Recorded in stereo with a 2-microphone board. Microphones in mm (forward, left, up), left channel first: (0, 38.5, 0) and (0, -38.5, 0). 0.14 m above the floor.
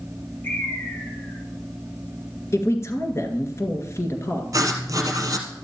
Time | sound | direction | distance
0.4 | a bird | 25° left (ahead or behind) | 2.5 m
2.5 | a man speaking | 35° left (ahead or behind) | 1.9 m
4.5 | writing | 45° right (ahead or behind) | 1.4 m